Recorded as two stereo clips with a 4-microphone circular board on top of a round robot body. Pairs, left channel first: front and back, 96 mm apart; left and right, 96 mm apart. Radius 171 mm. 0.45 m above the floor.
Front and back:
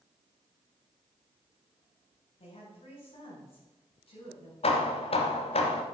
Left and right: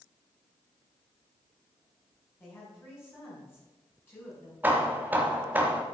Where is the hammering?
20° right, 1.2 m.